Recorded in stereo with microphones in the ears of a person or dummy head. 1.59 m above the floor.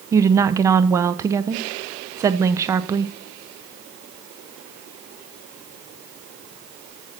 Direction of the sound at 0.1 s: 15° right (ahead or behind).